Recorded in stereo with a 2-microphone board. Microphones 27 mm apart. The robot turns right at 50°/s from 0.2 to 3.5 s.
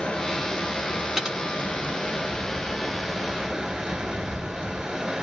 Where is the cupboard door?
No cupboard door in this recording.